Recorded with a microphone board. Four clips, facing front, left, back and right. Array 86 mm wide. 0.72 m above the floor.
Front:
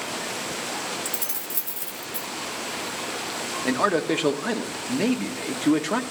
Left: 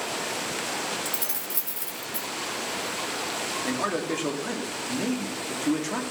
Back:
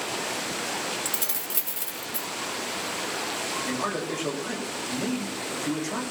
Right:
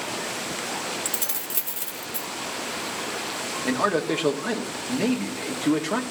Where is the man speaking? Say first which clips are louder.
Right 6 dB, front 9 dB; 25° right, 1.5 m.